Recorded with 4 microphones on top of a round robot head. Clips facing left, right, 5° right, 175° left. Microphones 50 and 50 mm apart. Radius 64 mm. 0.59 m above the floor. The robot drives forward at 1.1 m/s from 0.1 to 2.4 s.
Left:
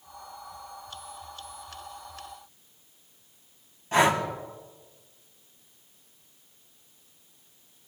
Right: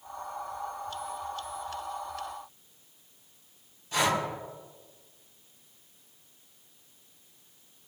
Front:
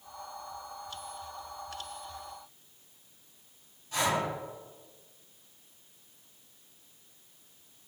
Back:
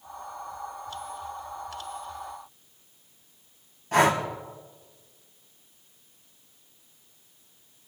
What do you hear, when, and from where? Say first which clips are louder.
3.9 s breathing: left 5 dB, back 8 dB; 140° left, 4.5 m